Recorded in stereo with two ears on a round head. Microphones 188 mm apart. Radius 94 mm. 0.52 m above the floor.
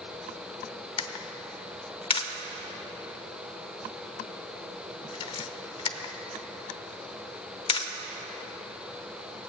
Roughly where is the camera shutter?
Left.